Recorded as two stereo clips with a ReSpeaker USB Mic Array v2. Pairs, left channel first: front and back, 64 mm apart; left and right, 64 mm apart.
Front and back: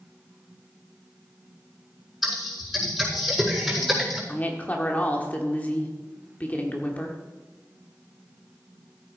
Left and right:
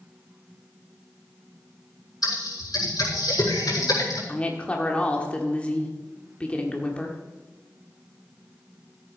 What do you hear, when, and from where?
2.2 s typing on a keyboard: 90° left, 6 m
4.3 s a woman speaking: 40° left, 1.4 m